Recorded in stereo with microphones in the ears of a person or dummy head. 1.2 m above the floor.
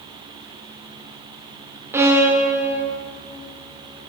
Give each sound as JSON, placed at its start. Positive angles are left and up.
{"t": 1.9, "sound": "a violin", "side_deg": -5, "distance_m": 0.9}